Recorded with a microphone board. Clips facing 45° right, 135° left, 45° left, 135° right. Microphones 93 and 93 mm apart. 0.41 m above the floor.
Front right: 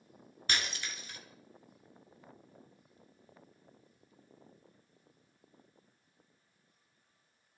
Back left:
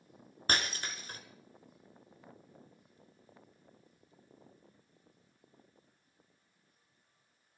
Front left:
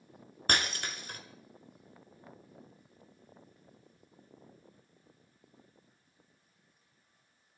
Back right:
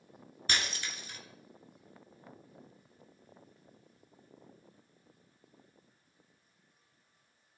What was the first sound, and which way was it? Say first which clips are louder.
Breaking glass: back left 3 dB, front left 4 dB; 85° left.